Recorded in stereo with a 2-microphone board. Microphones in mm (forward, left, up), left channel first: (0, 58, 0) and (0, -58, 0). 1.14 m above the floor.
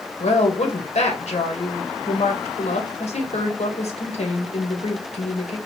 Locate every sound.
0.2 s a woman speaking: 70° left (ahead or behind), 1.2 m